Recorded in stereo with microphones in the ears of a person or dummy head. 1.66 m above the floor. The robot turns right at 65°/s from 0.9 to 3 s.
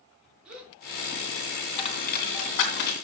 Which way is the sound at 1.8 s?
35° left (ahead or behind).